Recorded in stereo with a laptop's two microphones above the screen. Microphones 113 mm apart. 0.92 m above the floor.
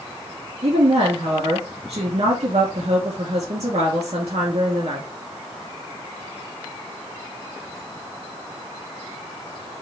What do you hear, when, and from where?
0.6 s a woman speaking: 70° right (ahead or behind), 1.7 m